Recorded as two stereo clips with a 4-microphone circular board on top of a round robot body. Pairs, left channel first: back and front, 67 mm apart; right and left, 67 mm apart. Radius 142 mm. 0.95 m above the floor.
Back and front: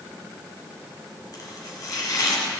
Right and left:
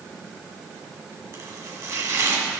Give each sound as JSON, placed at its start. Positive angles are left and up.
{"t": 1.3, "sound": "chopping", "azimuth_deg": 135, "distance_m": 1.8}